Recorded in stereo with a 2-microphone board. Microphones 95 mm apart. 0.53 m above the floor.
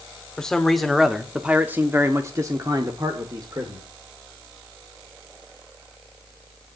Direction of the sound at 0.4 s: 5° left (ahead or behind).